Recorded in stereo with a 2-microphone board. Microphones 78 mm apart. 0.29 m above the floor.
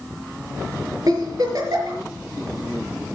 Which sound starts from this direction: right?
A giggle, at 1.1 s.